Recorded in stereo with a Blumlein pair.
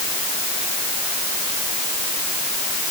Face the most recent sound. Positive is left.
No sound to turn to.